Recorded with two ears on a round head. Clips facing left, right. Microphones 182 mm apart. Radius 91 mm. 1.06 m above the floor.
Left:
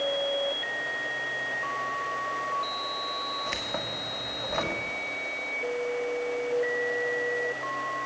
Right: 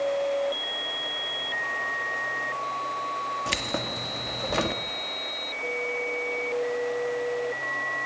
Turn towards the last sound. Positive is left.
turn(degrees=-45)  # may be behind; listen again after turning